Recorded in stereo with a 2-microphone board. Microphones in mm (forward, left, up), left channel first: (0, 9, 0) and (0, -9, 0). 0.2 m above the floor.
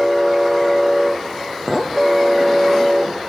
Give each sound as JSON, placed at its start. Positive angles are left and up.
{"t": 1.7, "sound": "a clink", "side_deg": 5, "distance_m": 3.0}